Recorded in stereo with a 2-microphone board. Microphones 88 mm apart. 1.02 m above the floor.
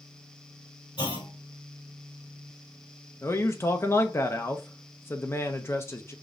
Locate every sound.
1.0 s a clunk: 80° left, 1.8 m
3.2 s a man speaking: 30° left (ahead or behind), 0.5 m